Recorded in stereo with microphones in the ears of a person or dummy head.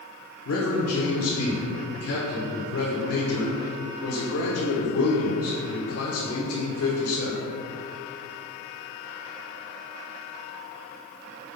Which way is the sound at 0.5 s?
75° left (ahead or behind).